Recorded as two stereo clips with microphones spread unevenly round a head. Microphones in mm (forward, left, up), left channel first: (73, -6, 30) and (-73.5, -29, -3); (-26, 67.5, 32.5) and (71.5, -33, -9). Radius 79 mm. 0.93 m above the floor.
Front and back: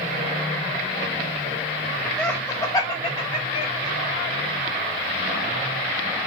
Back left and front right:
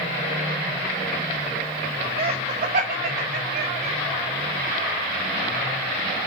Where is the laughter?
80° right, 0.7 m; by 4.0 s 45° right, 1.5 m.